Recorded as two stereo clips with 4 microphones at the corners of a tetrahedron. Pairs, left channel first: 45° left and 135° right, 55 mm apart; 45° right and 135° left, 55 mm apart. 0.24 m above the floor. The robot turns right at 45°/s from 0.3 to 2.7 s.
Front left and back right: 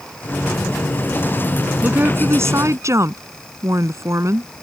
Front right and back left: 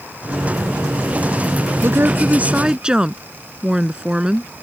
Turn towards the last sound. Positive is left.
turn(degrees=-155)